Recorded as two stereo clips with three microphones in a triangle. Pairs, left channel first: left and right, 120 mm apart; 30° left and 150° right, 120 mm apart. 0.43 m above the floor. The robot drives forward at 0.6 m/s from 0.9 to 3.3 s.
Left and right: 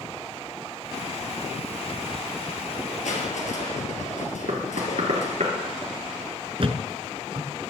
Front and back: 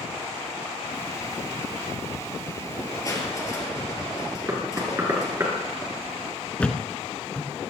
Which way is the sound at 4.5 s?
85° right.